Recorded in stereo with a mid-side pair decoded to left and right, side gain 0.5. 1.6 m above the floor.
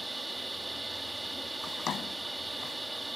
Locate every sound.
0.0 s a machine running: 10° right
1.6 s a drawer: 50° left